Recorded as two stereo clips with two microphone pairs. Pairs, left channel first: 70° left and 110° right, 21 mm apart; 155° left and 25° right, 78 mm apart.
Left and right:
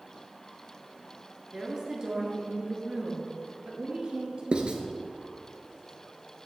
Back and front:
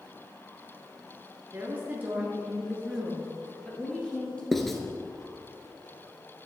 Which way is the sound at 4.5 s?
115° right.